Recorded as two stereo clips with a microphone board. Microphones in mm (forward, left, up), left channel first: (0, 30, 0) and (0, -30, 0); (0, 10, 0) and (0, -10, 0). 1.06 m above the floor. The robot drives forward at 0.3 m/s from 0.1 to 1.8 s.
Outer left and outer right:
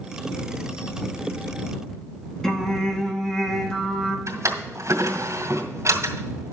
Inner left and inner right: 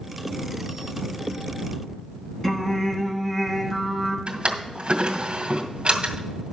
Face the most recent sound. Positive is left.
turn(degrees=-55)  # may be behind; listen again after turning